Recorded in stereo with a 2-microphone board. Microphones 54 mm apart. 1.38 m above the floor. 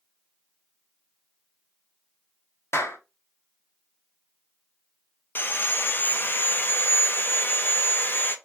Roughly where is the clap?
Left.